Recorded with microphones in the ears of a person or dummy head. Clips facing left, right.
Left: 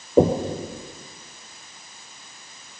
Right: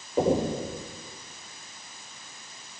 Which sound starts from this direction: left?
Knocking, at 0.2 s.